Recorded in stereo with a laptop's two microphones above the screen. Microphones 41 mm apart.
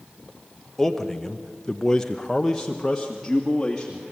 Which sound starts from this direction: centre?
A man speaking, at 0.8 s.